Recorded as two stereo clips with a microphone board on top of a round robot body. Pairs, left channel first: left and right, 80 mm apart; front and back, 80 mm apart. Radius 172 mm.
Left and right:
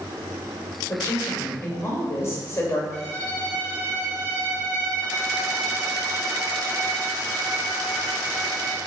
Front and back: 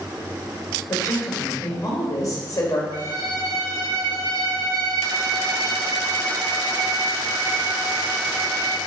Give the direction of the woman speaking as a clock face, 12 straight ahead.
11 o'clock.